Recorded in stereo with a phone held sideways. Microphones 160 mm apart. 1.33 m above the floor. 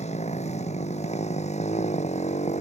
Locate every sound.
0.0 s a motorcycle: 45° left (ahead or behind)